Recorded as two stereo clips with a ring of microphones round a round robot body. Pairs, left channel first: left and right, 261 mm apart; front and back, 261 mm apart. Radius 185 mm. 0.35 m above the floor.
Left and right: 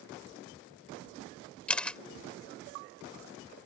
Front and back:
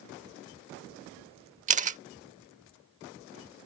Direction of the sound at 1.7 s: 170° left.